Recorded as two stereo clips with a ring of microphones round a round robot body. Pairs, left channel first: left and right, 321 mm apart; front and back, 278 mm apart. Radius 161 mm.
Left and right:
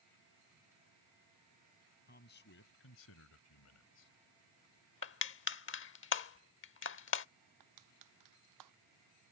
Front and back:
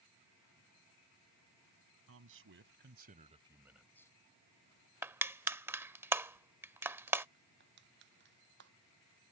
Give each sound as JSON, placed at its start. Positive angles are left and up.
{"t": 2.1, "sound": "a man speaking", "azimuth_deg": 150}
{"t": 5.0, "sound": "crushing", "azimuth_deg": 105}
{"t": 7.6, "sound": "crushing", "azimuth_deg": -120}